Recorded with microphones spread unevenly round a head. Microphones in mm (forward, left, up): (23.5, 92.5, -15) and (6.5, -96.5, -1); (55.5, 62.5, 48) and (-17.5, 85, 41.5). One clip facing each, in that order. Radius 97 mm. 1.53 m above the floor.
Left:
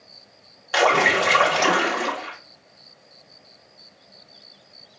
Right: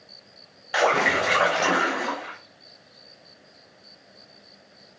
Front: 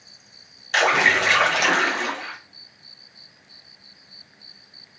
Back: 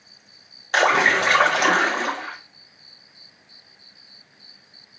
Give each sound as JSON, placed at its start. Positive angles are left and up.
{"t": 0.7, "sound": "a splash", "azimuth_deg": 115, "distance_m": 1.8}